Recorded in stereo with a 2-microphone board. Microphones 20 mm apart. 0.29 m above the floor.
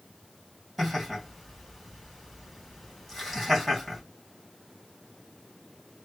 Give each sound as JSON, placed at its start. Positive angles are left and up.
{"t": 0.8, "sound": "laughter", "side_deg": -5, "distance_m": 1.9}